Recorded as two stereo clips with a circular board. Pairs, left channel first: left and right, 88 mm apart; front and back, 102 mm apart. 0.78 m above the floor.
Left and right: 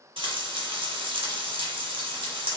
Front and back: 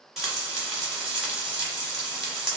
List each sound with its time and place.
0.2 s frying: 95° right, 0.9 m